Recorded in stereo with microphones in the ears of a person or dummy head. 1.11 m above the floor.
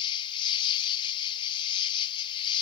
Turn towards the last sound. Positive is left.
turn(degrees=30)  # may be behind; listen again after turning